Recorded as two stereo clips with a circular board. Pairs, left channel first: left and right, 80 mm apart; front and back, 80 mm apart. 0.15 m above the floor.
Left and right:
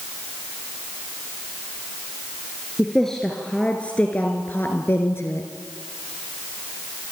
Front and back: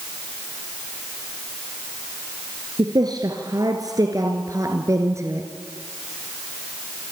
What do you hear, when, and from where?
2.8 s a woman speaking: 175° left, 3 m; by 5.5 s 135° left, 3 m